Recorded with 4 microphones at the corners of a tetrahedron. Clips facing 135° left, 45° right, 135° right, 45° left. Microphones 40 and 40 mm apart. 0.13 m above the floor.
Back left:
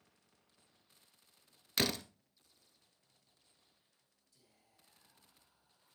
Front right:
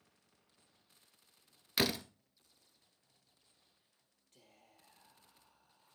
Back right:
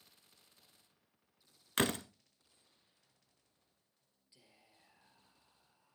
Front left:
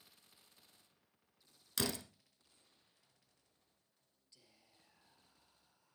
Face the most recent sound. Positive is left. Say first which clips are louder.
# front right 7 dB, back right 3 dB
turn(degrees=-65)